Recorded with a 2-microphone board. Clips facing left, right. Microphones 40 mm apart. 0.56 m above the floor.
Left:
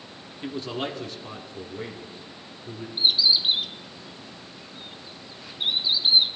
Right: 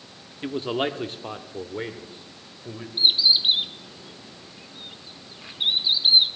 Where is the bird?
30° right (ahead or behind), 1.0 m.